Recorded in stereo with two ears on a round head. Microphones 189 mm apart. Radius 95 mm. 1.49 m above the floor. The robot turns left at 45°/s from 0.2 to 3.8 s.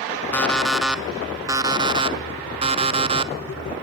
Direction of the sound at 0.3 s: 10° left (ahead or behind).